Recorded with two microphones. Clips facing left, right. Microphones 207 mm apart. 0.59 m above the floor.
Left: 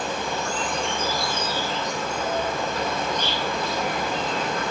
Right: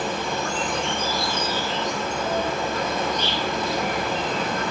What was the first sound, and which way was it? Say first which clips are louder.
An insect: right 1 dB; 60° right (ahead or behind).